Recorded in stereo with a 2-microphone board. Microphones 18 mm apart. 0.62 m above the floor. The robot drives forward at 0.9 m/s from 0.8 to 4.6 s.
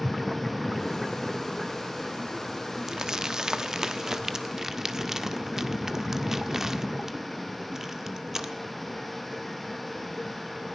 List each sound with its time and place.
2.9 s crumpling: 30° right (ahead or behind), 1.1 m; by 8.5 s 20° right (ahead or behind), 1.5 m